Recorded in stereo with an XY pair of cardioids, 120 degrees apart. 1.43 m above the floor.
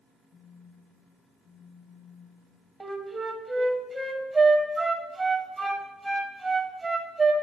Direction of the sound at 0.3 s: 25° left.